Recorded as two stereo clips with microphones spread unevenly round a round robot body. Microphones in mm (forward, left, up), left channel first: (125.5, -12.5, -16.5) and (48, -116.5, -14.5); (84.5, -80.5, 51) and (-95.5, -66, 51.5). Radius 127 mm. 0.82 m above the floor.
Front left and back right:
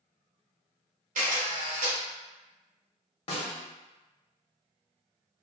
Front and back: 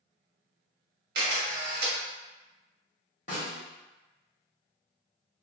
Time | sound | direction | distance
1.1 | a camera shutter | 165° right | 0.9 m
3.3 | a snare drum | 45° left | 0.7 m